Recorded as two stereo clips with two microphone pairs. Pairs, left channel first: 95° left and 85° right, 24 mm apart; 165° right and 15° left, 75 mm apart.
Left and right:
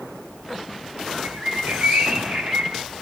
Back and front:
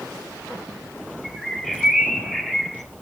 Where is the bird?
80° right, 2 m.